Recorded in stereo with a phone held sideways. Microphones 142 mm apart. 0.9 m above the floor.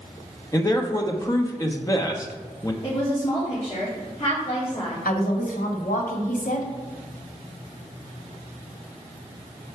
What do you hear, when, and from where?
0.5 s a man speaking: 25° left (ahead or behind), 0.9 m
2.8 s a woman speaking: 30° left (ahead or behind), 2.5 m
5.0 s a woman speaking: 75° left (ahead or behind), 1.8 m